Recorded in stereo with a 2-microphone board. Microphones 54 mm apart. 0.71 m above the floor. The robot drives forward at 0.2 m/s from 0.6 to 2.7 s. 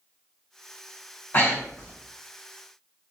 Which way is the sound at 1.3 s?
45° left (ahead or behind).